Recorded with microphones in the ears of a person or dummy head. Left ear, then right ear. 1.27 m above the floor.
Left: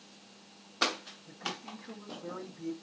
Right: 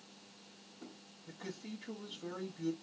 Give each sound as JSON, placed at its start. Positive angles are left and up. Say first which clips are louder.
{"t": 1.3, "sound": "a man speaking", "louder": "left 7 dB", "side_deg": -80, "distance_m": 1.5}